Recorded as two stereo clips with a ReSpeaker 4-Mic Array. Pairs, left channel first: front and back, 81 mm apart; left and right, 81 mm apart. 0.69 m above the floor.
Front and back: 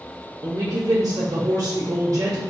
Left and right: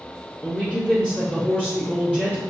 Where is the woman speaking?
160° left, 0.6 m.